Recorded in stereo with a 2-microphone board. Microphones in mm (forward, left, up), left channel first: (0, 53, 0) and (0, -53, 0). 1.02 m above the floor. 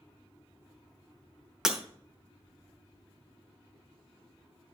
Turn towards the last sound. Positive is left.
turn(degrees=-5)  # may be behind; listen again after turning